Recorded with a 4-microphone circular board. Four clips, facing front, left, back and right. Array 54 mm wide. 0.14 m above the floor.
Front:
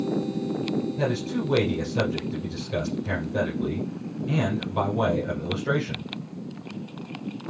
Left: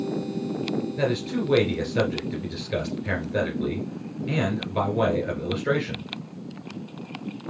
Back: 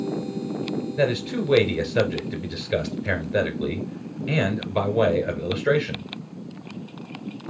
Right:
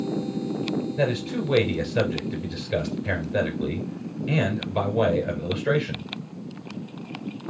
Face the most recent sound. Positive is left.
turn(degrees=180)